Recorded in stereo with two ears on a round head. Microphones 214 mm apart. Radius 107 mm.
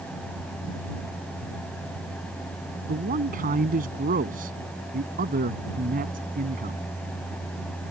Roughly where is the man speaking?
Right.